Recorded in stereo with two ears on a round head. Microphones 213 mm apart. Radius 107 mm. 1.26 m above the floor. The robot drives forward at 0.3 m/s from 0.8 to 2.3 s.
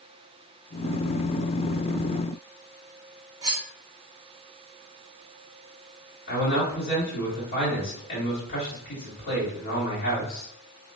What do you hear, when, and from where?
3.4 s cutlery clinking: 15° right (ahead or behind), 0.6 m
6.3 s a man speaking: 45° left (ahead or behind), 1.8 m